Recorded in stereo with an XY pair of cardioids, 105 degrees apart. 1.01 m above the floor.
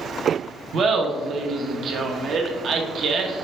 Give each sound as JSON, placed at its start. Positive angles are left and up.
{"t": 0.7, "sound": "laughter", "azimuth_deg": -60, "distance_m": 0.8}